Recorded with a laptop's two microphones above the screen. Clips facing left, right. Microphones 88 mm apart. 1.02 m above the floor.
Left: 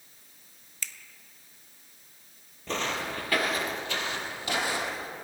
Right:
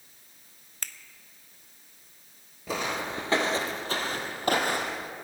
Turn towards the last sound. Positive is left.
turn(degrees=-55)  # may be behind; listen again after turning